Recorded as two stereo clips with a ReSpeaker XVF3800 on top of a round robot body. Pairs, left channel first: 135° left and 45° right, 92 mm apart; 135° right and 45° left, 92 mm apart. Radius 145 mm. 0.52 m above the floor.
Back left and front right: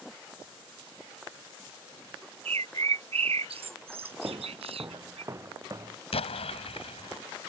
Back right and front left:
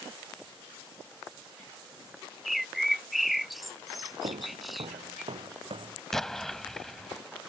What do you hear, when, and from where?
2.5 s a bird: 45° right
4.2 s footsteps: 15° left; by 6.0 s 10° left
6.1 s an explosion: 140° left